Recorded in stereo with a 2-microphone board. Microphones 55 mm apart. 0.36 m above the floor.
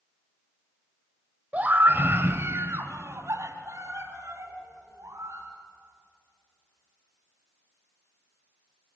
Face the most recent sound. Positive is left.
turn(degrees=-70)  # may be behind; listen again after turning